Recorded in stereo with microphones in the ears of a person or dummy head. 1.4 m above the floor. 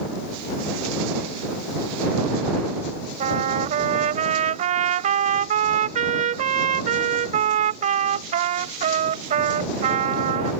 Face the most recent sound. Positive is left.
turn(degrees=-45)  # may be behind; listen again after turning